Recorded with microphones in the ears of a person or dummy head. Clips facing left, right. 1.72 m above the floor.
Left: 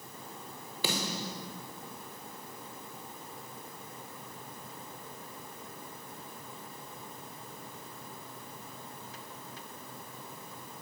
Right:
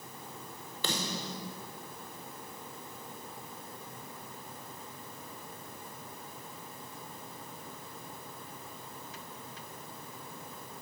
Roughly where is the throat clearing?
No throat clearing in this recording.